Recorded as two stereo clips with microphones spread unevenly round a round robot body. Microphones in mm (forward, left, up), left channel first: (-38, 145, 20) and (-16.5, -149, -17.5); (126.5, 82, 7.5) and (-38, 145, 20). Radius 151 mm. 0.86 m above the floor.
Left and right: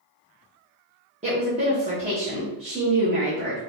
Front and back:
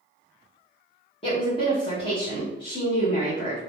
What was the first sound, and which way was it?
A woman speaking, 45° right.